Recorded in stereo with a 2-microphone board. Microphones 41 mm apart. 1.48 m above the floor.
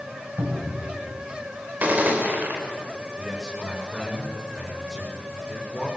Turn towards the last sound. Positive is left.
turn(degrees=-10)  # may be behind; listen again after turning